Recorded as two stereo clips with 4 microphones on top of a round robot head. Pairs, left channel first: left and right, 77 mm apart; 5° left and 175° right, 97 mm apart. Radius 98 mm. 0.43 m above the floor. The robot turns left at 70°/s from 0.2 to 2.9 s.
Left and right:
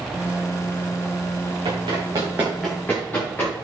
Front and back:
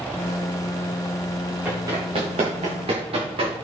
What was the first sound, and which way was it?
Running footsteps, 100° right.